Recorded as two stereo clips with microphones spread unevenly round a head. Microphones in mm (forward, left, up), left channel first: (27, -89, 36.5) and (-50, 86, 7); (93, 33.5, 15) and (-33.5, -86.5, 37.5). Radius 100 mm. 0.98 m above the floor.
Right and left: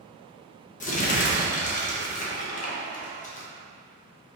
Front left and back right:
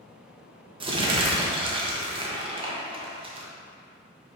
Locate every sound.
0.8 s crumpling: 90° right, 0.8 m